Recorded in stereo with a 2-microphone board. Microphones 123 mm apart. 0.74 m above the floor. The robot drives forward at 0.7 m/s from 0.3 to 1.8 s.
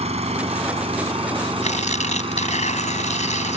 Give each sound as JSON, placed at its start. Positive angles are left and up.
{"t": 0.0, "sound": "an engine running", "side_deg": -60}
{"t": 1.6, "sound": "tearing paper", "side_deg": 70}